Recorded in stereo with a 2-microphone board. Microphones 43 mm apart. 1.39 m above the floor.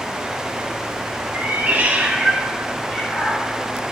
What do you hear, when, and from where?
1.3 s a cat meowing: 45° right (ahead or behind), 0.8 m; by 3.9 s 25° left (ahead or behind), 1.5 m